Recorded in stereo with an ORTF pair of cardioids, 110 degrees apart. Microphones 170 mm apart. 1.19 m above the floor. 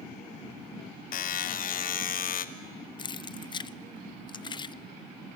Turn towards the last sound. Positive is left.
turn(degrees=25)